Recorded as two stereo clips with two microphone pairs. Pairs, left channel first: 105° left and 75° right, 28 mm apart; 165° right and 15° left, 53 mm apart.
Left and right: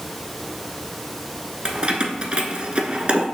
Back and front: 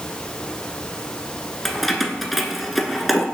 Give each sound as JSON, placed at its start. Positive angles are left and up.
{"t": 1.6, "sound": "keys jangling", "azimuth_deg": -75, "distance_m": 1.0}